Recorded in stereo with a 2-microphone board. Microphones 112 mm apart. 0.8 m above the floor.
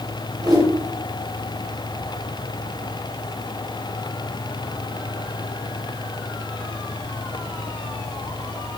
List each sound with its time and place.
0.4 s a whoosh: 35° right (ahead or behind), 2 m